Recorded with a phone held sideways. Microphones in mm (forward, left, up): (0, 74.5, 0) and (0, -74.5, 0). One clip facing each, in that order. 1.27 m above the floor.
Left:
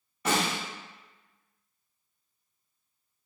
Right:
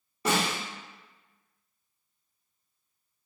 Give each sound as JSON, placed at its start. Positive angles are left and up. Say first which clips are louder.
{"t": 0.2, "sound": "a snare drum", "louder": "even", "side_deg": -30, "distance_m": 1.3}